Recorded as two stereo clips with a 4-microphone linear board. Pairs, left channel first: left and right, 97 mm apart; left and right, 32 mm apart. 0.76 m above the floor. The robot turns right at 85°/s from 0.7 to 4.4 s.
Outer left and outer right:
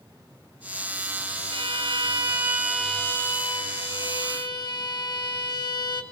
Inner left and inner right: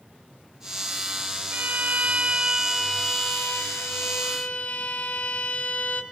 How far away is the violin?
About 1.7 m.